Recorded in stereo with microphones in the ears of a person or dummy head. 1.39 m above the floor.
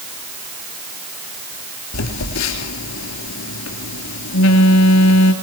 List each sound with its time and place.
1.9 s a phone buzzing: 80° left, 3 m